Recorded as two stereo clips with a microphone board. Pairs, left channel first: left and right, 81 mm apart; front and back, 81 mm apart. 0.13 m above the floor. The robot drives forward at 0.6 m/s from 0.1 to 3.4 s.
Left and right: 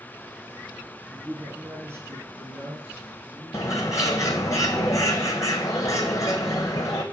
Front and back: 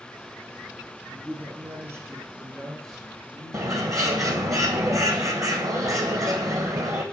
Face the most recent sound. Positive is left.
turn(degrees=135)